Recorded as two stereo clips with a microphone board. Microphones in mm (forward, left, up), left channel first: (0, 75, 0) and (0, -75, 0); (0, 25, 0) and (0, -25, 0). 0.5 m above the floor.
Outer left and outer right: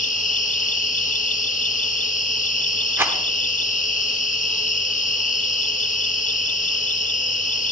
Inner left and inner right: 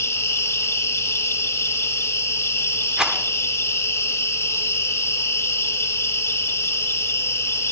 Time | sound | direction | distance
0.0 | an insect | 65° left (ahead or behind) | 0.8 m
3.0 | a rattle | 15° right (ahead or behind) | 1.0 m